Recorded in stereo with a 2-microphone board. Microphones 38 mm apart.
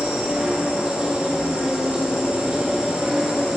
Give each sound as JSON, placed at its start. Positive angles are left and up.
{"t": 0.0, "sound": "an insect", "side_deg": -25, "distance_m": 1.2}